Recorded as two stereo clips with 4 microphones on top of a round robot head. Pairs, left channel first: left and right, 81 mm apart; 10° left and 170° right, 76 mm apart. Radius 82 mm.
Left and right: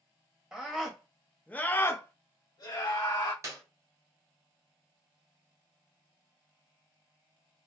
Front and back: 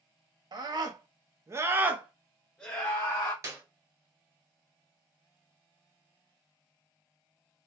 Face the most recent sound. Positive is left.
turn(degrees=-135)